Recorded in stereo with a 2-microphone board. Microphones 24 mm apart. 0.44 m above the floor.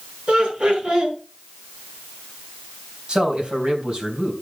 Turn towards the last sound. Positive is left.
turn(degrees=-45)  # may be behind; listen again after turning